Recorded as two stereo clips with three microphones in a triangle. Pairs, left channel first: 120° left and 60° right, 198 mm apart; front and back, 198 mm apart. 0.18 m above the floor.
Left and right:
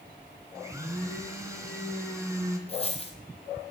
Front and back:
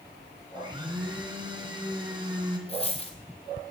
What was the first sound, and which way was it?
A blender, 125° right.